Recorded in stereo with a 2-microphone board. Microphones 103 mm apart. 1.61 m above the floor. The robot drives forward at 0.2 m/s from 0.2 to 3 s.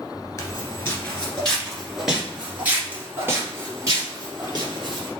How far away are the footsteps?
About 1.7 m.